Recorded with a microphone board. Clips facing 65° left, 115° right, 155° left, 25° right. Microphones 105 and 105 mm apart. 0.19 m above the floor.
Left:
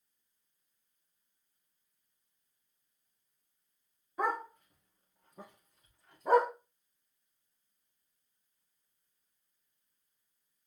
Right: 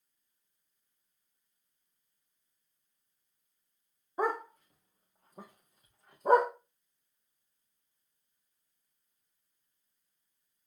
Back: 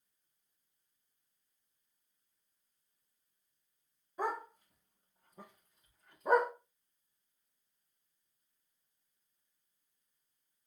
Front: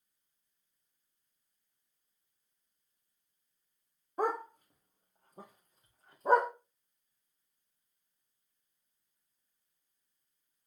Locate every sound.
4.2 s a dog barking: 60° right, 3.5 m; by 6.5 s 80° right, 3 m